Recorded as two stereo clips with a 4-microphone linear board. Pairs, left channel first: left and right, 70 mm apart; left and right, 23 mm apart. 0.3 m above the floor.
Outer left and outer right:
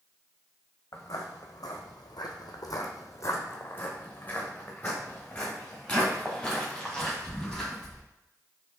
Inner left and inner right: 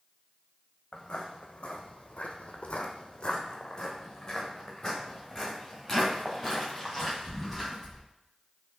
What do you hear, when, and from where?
0.9 s footsteps: 55° left (ahead or behind), 1.2 m; by 8.0 s centre (ahead or behind), 3.5 m